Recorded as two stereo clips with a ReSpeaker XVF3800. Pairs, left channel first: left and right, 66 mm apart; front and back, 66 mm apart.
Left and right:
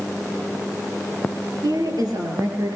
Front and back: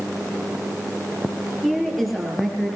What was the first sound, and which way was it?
A woman speaking, 90° right.